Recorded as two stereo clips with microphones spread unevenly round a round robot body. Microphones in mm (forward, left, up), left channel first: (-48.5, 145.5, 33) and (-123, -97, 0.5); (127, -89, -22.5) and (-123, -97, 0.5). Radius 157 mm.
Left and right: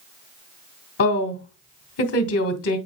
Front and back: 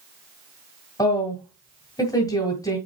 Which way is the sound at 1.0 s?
70° left.